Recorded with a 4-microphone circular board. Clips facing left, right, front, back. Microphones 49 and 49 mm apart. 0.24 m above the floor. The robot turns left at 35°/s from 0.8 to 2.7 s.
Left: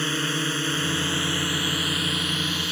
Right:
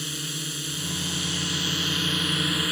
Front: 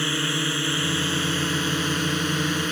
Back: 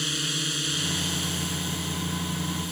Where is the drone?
55° left; by 2.7 s 15° right.